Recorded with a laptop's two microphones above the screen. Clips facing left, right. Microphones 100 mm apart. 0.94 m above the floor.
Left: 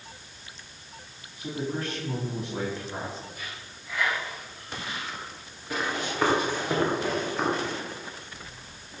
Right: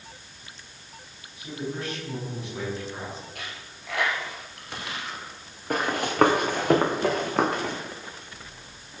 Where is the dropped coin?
75° right (ahead or behind), 3.5 m.